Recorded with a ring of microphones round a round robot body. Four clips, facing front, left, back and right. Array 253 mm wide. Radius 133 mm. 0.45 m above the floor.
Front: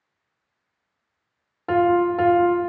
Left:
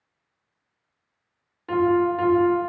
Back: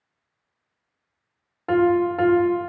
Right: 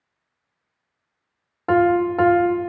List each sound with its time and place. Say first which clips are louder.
1.7 s a piano: right 3 dB, front 1 dB; 95° right, 1.2 m